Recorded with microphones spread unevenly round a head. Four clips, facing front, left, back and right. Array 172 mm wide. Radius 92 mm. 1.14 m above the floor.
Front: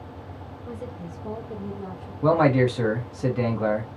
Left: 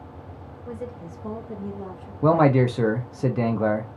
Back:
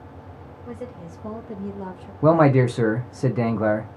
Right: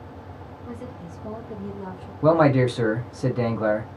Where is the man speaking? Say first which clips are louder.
Even, back 3 dB; 150° left, 0.5 m.